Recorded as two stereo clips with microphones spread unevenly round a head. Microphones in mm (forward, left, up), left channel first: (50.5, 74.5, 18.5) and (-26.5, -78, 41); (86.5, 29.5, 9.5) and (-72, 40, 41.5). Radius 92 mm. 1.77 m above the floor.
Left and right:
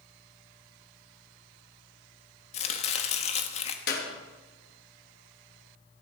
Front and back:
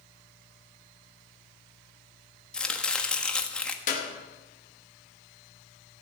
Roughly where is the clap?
Ahead left.